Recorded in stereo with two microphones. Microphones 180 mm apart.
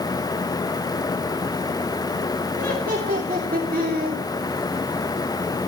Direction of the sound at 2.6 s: 65° right (ahead or behind).